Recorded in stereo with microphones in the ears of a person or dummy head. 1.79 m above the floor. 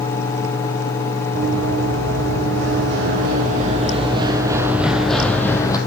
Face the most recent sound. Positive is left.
turn(degrees=15)  # may be behind; listen again after turning